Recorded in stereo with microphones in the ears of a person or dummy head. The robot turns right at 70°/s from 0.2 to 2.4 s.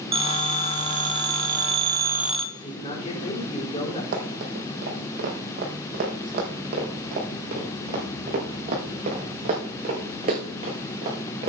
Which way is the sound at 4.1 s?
55° right (ahead or behind).